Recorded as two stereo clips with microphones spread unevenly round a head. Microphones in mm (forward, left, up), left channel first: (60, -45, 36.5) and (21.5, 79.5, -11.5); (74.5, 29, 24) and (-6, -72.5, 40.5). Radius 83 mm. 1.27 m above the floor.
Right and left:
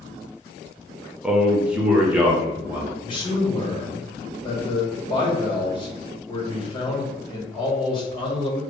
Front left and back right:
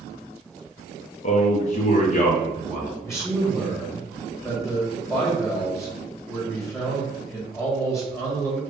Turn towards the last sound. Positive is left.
turn(degrees=-15)